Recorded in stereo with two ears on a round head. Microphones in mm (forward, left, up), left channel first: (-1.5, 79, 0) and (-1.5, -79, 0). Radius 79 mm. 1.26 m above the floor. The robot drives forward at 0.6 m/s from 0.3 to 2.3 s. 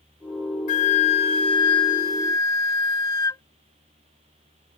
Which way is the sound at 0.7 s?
45° left (ahead or behind).